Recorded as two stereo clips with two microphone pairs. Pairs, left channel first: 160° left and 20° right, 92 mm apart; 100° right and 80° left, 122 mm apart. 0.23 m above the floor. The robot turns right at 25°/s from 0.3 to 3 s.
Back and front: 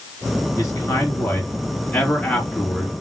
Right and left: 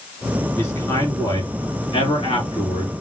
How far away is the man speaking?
About 2 m.